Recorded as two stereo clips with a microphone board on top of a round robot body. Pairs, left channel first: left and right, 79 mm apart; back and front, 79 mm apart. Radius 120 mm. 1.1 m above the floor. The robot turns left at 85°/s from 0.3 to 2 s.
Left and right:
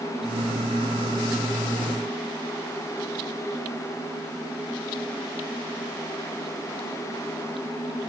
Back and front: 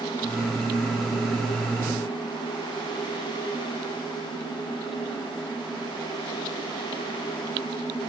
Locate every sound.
Only background noise.